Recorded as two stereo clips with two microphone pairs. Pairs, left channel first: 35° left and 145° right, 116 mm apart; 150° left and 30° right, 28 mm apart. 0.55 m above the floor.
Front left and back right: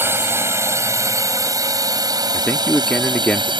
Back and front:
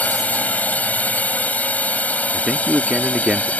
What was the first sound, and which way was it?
A drone, 150° left.